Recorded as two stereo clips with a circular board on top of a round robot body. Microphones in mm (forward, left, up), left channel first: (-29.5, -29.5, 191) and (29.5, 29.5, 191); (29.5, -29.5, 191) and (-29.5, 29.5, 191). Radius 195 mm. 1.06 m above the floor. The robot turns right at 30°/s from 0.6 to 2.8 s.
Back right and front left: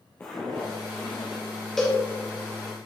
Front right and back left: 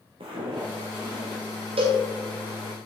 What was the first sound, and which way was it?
Footsteps, 155° left.